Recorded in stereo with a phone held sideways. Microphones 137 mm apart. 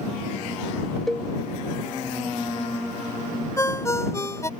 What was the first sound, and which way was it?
A cowbell, centre (ahead or behind).